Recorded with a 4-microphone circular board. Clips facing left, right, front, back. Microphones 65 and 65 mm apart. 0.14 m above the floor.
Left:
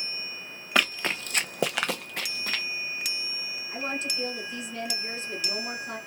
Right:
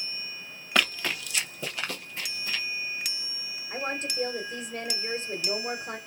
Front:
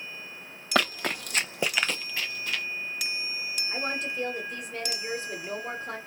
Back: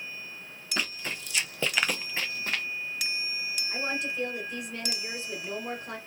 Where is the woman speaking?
70° right, 1.4 m.